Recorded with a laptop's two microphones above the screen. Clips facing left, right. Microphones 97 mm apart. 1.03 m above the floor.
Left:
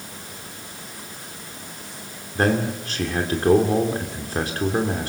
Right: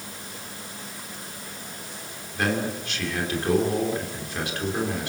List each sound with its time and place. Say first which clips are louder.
2.4 s a man speaking: left 5 dB; 40° left (ahead or behind), 2.5 m